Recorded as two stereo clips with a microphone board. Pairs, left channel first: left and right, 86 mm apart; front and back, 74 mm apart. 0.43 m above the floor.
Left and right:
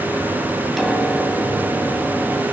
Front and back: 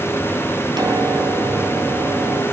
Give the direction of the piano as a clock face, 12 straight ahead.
6 o'clock.